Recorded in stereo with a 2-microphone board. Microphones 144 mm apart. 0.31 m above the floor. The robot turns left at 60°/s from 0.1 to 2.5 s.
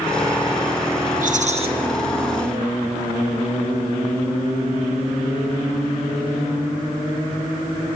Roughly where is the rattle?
Right.